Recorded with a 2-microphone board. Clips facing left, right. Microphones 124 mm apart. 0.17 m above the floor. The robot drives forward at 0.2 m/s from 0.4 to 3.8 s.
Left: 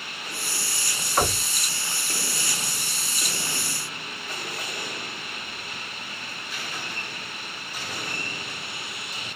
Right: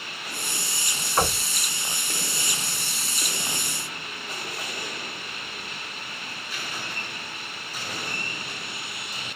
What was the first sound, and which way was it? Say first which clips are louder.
Knocking: even; centre (ahead or behind).